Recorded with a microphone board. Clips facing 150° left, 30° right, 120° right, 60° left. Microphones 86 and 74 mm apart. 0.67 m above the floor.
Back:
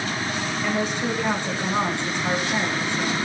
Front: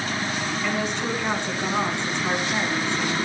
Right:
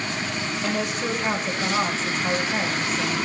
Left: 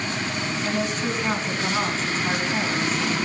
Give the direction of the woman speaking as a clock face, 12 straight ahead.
5 o'clock.